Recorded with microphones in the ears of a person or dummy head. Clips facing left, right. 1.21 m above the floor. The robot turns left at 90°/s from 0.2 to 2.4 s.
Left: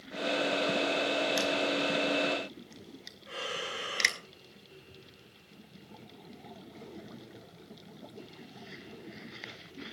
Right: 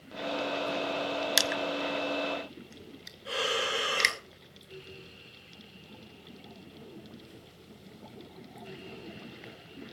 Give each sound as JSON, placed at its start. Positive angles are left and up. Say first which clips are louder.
{"t": 1.4, "sound": "crushing", "louder": "left 2 dB", "side_deg": -70, "distance_m": 0.6}
{"t": 3.2, "sound": "breathing", "louder": "right 7 dB", "side_deg": -80, "distance_m": 2.5}